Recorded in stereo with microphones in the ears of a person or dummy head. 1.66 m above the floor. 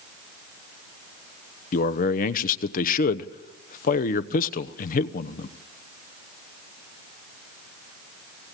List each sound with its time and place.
1.7 s a man speaking: 50° left (ahead or behind), 1.0 m